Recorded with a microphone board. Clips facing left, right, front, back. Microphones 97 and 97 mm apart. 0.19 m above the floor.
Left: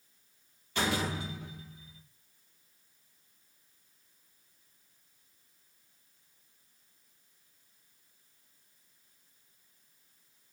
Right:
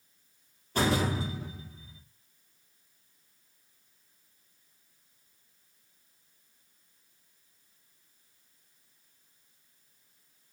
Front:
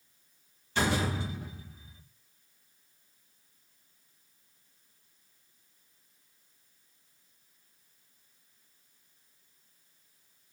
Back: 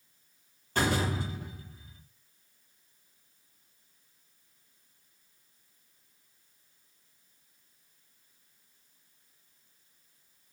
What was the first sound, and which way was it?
A door slam, 140° right.